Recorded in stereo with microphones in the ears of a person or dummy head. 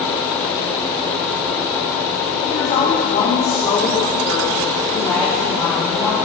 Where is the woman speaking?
40° left (ahead or behind), 4.5 m; by 6.2 s 10° left (ahead or behind), 3 m.